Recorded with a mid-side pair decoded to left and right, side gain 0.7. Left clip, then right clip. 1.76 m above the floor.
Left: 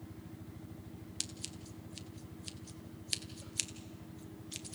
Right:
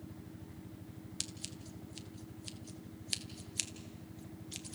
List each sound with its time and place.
1.2 s scissors: 5° left, 1.3 m